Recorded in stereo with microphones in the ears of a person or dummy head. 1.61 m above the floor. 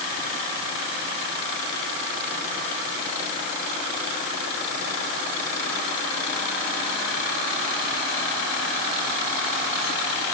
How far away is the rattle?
No rattle in this recording.